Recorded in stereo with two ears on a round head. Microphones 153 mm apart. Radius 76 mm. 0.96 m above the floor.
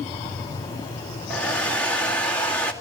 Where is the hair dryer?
5° left (ahead or behind), 2 m.